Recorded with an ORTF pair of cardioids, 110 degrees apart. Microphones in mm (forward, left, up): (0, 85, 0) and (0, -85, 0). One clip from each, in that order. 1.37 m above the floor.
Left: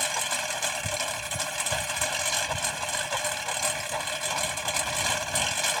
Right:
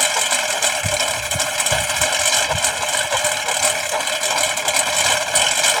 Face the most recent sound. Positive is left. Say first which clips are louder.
# right 10 dB
turn(degrees=-55)